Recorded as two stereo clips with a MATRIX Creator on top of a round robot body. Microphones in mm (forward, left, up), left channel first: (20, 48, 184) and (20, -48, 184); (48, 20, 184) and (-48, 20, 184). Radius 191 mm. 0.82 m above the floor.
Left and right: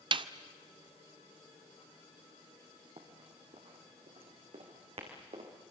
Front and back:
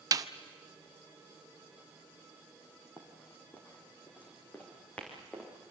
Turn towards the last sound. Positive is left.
turn(degrees=-80)